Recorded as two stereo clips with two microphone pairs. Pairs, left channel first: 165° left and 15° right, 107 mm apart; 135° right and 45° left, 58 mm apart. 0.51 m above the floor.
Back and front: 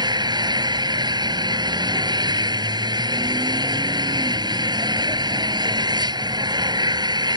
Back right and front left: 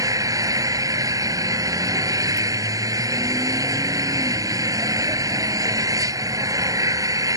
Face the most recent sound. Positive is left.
turn(degrees=35)